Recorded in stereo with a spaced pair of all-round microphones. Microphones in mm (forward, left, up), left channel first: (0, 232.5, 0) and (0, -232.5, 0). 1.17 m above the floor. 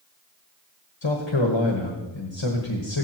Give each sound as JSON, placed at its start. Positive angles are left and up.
{"t": 1.0, "sound": "a man speaking", "side_deg": 65, "distance_m": 1.3}